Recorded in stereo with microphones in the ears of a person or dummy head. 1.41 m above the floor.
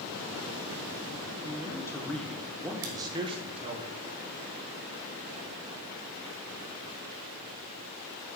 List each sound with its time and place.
1.4 s a man speaking: 25° left (ahead or behind), 1.6 m; by 3.8 s 35° right (ahead or behind), 1.9 m
2.8 s scissors: 80° right, 2.0 m